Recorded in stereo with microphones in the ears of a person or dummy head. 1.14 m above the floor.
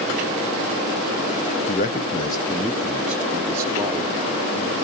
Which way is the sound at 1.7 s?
35° left (ahead or behind).